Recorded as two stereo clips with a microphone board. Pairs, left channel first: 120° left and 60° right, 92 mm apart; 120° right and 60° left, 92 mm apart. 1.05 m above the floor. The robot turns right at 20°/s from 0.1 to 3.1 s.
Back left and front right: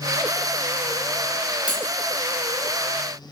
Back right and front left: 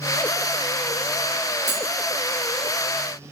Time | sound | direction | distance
1.7 | cutlery clinking | 15° left | 1.5 m